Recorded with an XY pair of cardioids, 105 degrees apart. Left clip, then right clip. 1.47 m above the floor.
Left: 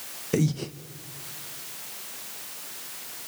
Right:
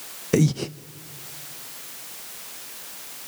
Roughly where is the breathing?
Ahead right.